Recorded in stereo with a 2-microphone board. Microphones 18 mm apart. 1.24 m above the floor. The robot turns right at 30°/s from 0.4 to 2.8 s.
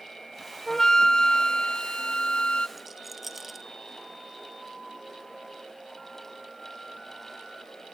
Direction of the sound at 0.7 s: 35° left.